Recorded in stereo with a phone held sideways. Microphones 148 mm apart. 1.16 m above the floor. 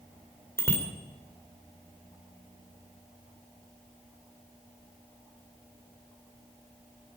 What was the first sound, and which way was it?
A bicycle bell, 15° left (ahead or behind).